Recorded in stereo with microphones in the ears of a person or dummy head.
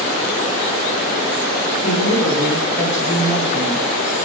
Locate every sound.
1.8 s a woman speaking: 60° left (ahead or behind), 3.5 m